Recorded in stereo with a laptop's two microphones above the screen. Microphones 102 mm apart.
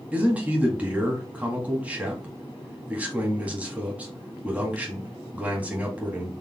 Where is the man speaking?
15° right (ahead or behind), 1.8 m.